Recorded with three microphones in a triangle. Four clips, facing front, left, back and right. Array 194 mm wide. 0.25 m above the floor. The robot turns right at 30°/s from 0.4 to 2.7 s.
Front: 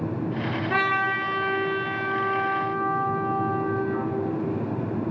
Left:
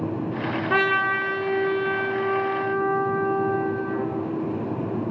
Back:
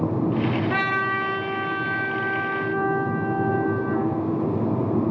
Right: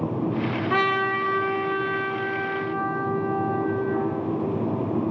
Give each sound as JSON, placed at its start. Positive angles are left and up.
{"t": 0.7, "sound": "a trumpet", "azimuth_deg": 85, "distance_m": 2.0}